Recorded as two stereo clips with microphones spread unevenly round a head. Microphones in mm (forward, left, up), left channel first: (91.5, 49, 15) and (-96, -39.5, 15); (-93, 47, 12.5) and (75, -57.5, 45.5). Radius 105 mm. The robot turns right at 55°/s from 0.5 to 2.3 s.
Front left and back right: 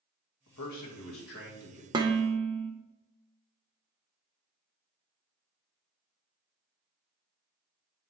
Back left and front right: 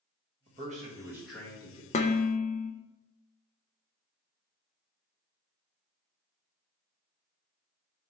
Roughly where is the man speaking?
Ahead.